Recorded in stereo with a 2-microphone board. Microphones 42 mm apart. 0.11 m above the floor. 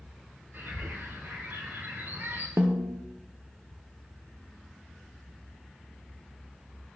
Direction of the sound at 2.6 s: 85° right.